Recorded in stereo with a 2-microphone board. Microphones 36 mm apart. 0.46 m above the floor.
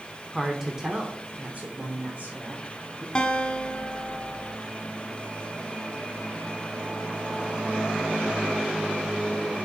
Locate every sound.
0.3 s a woman speaking: 5° right (ahead or behind), 1.1 m; by 3.0 s 60° right (ahead or behind), 1.8 m
3.1 s a guitar: 25° left (ahead or behind), 1.0 m